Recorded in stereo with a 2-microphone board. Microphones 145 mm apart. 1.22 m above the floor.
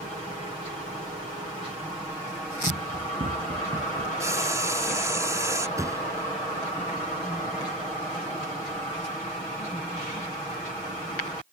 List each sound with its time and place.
2.7 s running footsteps: 65° right (ahead or behind); by 4.1 s 70° right (ahead or behind)
4.2 s frying: 20° right (ahead or behind)
5.8 s a thud: 20° right (ahead or behind)